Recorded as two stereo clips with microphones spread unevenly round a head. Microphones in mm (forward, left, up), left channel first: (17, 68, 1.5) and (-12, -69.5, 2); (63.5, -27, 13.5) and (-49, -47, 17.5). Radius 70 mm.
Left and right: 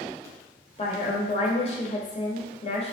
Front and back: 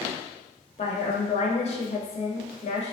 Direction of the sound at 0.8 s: 35° left.